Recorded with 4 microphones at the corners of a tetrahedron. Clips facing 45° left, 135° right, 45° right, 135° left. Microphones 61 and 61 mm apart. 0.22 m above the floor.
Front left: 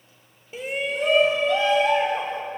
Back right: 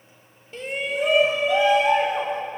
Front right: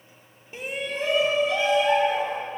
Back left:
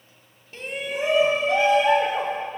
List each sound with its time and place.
0.5 s a shout: 20° right, 1.0 m; by 2.4 s 150° left, 2.5 m